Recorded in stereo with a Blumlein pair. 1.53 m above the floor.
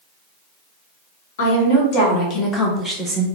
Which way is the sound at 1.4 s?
50° left.